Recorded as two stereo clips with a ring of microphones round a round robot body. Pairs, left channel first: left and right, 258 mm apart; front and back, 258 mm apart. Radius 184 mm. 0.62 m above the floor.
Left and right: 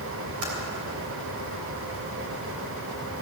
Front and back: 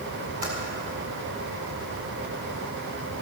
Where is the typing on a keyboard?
115° right, 3.5 m.